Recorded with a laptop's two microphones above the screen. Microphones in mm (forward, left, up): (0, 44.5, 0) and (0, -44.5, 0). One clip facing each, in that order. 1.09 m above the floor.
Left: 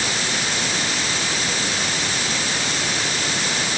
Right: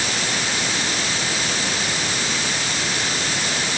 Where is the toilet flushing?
No toilet flushing in this recording.